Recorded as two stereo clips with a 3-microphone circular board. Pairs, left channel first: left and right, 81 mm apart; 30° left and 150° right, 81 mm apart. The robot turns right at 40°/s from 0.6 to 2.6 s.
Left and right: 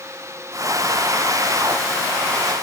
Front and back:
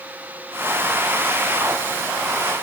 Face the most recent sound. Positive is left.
No sound to turn to.